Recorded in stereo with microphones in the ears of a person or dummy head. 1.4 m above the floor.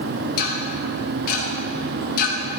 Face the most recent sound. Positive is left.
turn(degrees=55)  # may be behind; listen again after turning